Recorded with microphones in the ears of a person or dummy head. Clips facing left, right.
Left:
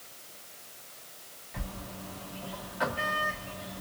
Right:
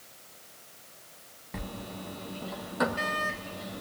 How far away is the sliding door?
About 1.5 m.